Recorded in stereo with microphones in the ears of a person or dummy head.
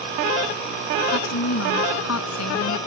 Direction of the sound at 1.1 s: 90° left.